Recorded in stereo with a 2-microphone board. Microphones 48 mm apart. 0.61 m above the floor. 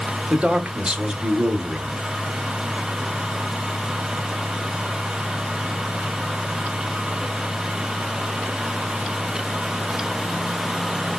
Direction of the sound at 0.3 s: 20° right (ahead or behind).